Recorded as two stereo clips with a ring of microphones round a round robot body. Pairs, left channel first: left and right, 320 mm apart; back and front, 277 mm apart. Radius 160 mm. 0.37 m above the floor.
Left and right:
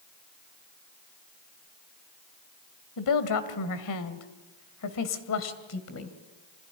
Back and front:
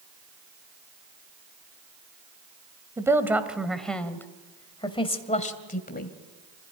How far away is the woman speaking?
About 2 m.